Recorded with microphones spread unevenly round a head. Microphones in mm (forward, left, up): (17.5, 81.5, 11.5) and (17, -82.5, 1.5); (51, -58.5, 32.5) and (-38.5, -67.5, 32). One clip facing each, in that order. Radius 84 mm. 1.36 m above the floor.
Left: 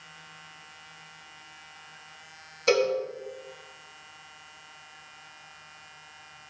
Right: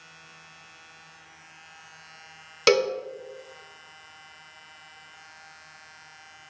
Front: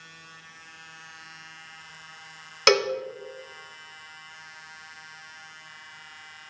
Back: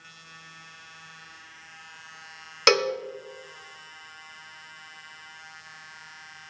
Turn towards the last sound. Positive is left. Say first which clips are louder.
# right 2 dB, front 1 dB
turn(degrees=-85)